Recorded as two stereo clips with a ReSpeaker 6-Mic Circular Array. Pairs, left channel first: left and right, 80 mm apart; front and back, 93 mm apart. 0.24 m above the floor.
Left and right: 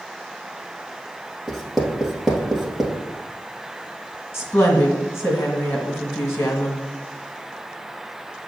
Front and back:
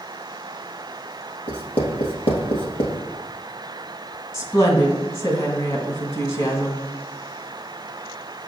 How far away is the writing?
About 1.6 m.